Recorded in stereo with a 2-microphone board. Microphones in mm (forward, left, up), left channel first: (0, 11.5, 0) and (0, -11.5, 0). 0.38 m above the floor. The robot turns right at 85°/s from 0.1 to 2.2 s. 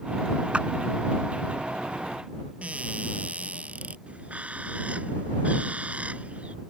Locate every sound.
0.5 s a clap: 55° right (ahead or behind); by 0.7 s 45° right (ahead or behind)
2.6 s a cupboard door: 70° right (ahead or behind)
4.1 s a bird: 75° right (ahead or behind)